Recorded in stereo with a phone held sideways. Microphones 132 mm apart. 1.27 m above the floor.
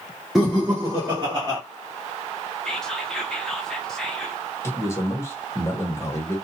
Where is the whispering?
5° left (ahead or behind), 0.9 m.